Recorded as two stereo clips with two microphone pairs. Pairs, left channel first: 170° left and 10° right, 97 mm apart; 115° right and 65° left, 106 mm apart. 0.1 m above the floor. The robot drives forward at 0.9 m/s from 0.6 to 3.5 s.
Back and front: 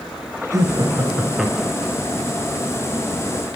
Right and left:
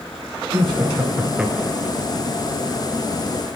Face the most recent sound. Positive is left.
turn(degrees=175)